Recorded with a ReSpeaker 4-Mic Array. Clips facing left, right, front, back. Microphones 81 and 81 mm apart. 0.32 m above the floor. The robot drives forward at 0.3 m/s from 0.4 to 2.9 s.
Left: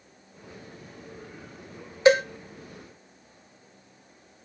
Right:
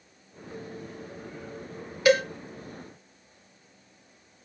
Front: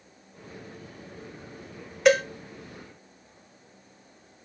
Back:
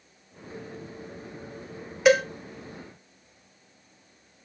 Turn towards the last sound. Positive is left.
turn(degrees=140)